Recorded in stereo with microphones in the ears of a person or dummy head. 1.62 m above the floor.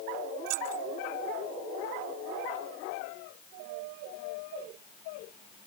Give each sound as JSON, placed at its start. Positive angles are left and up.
{"t": 0.5, "sound": "keys jangling", "side_deg": -80}